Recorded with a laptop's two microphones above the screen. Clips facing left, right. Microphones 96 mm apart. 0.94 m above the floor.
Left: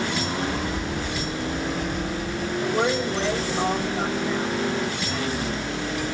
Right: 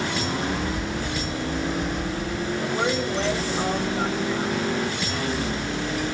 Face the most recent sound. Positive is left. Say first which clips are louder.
# left 3 dB
turn(degrees=45)  # may be behind; listen again after turning